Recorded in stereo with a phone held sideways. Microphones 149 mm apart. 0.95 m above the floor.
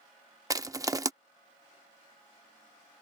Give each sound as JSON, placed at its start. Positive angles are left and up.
{"t": 0.5, "sound": "crushing", "side_deg": -25}